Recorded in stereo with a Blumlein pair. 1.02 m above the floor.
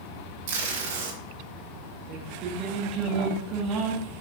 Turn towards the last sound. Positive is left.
turn(degrees=-35)